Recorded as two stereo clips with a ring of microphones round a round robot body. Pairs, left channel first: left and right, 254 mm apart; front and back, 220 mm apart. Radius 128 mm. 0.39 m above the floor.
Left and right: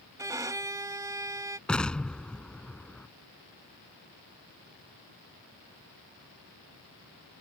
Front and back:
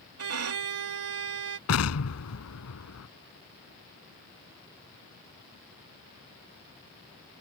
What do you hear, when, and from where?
0.2 s a violin: 165° right
1.7 s an explosion: 5° left